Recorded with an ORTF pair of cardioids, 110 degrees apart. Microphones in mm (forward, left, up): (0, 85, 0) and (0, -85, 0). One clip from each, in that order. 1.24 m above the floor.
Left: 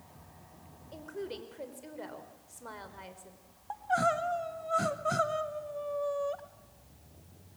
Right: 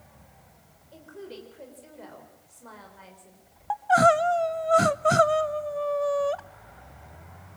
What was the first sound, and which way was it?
A woman speaking, 20° left.